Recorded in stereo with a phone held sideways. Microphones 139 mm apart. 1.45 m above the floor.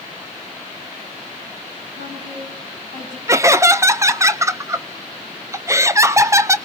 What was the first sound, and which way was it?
A woman speaking, 60° right (ahead or behind).